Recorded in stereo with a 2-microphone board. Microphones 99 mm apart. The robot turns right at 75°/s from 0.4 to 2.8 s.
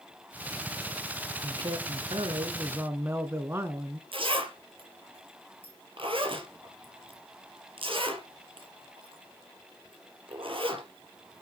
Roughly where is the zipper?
Right.